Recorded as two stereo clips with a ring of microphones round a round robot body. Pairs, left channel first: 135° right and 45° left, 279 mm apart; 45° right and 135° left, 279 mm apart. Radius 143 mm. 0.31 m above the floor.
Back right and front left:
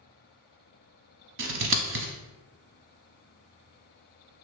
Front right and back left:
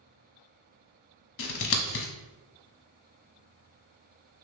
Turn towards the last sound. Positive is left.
turn(degrees=0)